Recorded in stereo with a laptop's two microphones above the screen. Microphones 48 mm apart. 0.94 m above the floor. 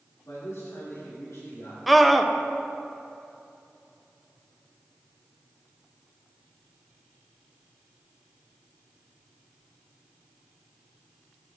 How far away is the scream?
About 0.6 m.